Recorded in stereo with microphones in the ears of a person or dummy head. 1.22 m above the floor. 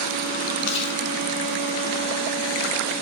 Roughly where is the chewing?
Left.